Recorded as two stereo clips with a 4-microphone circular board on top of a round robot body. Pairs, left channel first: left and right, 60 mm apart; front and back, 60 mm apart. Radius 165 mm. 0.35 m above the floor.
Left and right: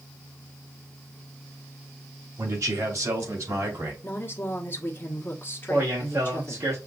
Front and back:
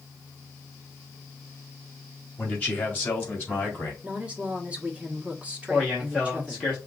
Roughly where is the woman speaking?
Behind left.